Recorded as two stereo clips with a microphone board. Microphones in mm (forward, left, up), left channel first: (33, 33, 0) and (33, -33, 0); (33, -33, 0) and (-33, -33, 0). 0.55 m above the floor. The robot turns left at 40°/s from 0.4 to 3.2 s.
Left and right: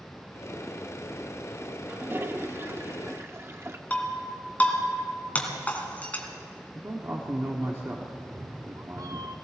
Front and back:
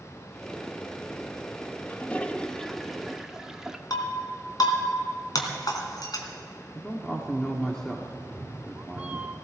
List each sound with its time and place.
1.9 s a toilet flushing: 50° right, 0.6 m; by 3.8 s 100° right, 0.6 m
3.9 s breaking glass: 20° left, 1.9 m
6.8 s a man speaking: 75° right, 1.2 m
8.2 s a cat meowing: 115° right, 0.6 m